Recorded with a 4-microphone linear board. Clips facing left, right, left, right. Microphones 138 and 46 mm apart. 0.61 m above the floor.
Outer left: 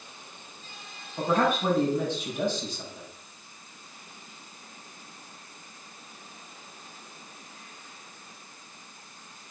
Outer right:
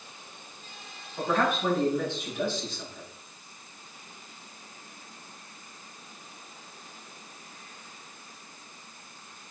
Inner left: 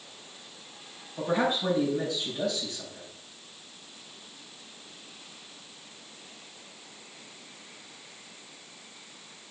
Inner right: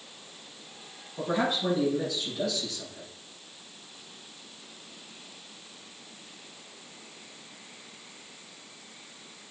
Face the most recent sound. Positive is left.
turn(degrees=15)  # may be behind; listen again after turning